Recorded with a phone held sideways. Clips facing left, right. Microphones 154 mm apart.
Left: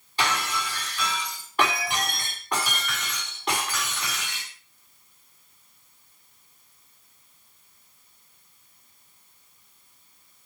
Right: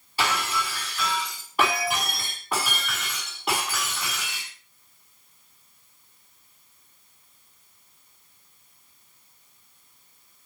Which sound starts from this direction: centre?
Breaking glass, at 0.2 s.